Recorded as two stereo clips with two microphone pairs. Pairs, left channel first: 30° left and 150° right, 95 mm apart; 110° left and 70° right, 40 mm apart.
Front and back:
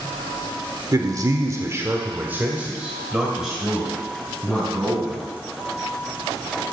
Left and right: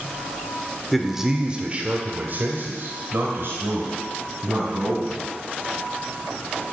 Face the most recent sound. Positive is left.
turn(degrees=-60)